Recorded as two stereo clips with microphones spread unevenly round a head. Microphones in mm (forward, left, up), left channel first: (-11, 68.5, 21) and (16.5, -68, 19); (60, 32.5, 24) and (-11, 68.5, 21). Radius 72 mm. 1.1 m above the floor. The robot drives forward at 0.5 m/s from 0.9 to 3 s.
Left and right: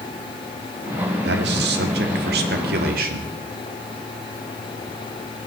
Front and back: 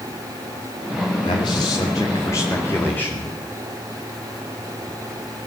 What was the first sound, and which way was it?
A man speaking, 80° right.